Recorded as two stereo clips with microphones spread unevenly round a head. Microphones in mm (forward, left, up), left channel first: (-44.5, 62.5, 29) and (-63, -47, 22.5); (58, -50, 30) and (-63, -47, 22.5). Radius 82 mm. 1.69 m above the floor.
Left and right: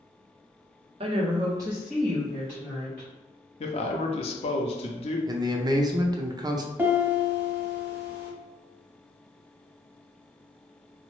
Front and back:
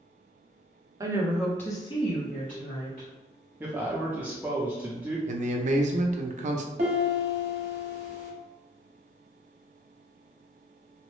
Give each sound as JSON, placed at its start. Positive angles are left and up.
{"t": 1.0, "sound": "a woman speaking", "azimuth_deg": -120, "distance_m": 0.7}
{"t": 3.6, "sound": "a man speaking", "azimuth_deg": 100, "distance_m": 0.5}
{"t": 5.3, "sound": "a man speaking", "azimuth_deg": -155, "distance_m": 0.5}
{"t": 6.8, "sound": "a piano", "azimuth_deg": -170, "distance_m": 0.9}